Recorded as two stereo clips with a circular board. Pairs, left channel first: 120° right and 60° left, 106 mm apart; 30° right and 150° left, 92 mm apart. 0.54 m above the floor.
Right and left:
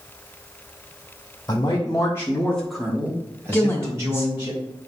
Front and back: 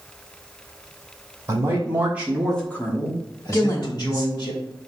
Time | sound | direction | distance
1.5 | a man speaking | 165° right | 1.6 m
3.5 | a woman speaking | 65° right | 0.9 m